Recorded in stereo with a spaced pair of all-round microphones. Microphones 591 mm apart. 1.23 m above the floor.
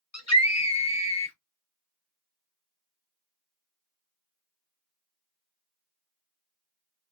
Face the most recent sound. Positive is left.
turn(degrees=25)  # may be behind; listen again after turning